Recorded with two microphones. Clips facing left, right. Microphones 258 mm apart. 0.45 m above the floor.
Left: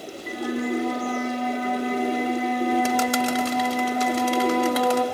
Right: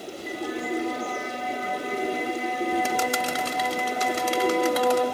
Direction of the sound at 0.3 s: 60° left (ahead or behind).